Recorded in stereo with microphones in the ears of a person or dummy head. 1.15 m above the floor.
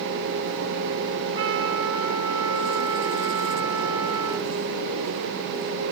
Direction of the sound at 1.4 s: 30° right (ahead or behind).